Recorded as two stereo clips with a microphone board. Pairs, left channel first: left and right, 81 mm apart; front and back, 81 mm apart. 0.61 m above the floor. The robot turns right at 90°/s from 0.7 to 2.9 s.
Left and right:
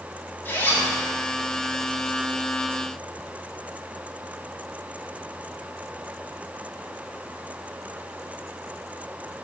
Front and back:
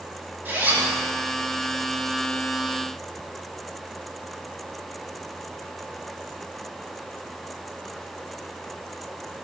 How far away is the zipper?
About 1.5 m.